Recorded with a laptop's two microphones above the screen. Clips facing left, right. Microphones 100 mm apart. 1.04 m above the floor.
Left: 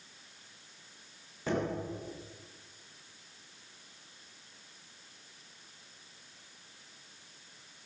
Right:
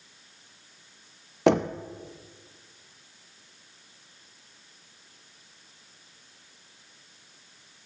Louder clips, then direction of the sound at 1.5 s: Right 11 dB; 75° right (ahead or behind).